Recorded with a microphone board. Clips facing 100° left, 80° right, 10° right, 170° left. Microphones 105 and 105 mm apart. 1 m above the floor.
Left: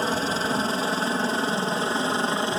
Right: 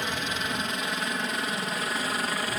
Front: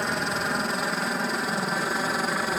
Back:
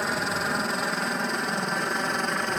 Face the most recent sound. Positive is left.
turn(degrees=70)